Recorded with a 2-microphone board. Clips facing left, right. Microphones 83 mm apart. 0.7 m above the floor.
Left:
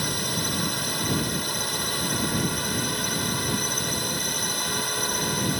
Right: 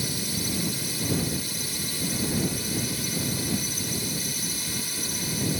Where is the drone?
55° left (ahead or behind).